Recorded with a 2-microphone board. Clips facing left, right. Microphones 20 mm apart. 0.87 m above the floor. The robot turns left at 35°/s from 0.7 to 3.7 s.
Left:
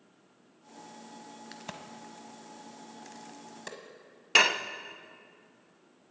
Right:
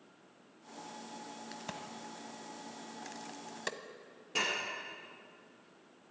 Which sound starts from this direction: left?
Dishes clattering, at 4.3 s.